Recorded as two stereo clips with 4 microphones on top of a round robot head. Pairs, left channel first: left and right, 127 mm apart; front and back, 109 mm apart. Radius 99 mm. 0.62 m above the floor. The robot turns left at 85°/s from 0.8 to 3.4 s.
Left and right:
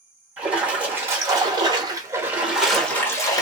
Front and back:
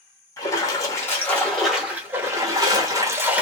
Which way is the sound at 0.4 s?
20° right.